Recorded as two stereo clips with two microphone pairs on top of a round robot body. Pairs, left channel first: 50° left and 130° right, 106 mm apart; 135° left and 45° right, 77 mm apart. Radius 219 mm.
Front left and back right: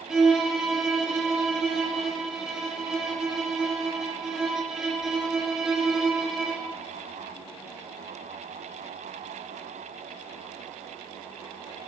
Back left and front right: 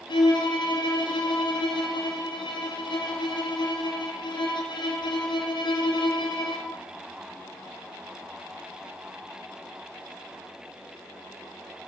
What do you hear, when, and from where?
0.1 s a violin: 145° left, 4.5 m